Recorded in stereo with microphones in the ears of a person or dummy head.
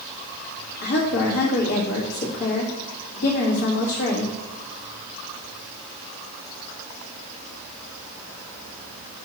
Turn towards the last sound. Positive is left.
turn(degrees=60)  # may be behind; listen again after turning